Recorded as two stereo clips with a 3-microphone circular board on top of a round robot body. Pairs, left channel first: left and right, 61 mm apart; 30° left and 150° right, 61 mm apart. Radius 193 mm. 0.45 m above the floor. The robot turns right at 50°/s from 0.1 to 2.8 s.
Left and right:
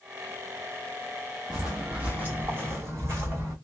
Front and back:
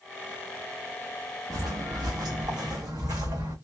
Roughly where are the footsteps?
Behind.